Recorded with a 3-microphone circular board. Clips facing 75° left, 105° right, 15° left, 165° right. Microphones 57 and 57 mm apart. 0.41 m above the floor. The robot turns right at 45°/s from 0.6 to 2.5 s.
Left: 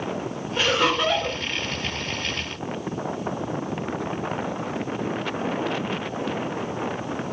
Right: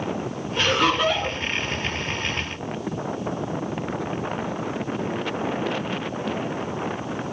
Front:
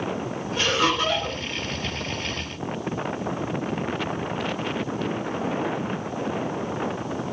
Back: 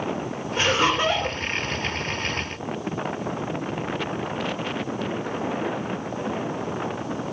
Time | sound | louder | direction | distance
0.6 | laughter | right 1 dB, back 2 dB | 155° left | 1.3 m